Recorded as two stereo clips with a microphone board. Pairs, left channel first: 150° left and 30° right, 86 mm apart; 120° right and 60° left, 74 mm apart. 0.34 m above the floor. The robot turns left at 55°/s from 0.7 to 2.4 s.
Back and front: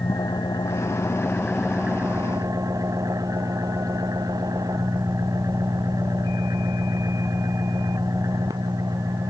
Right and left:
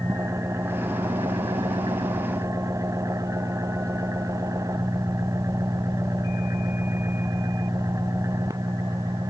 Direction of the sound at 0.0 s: 110° left.